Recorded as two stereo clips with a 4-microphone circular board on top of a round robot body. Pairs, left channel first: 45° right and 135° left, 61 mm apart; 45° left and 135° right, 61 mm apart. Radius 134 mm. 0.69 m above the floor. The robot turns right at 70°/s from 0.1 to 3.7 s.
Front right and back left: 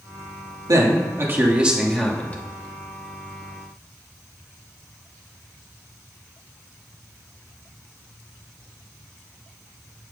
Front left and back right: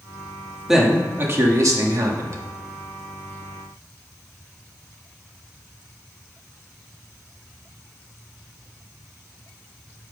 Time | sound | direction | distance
0.7 | a man speaking | 140° left | 1.4 m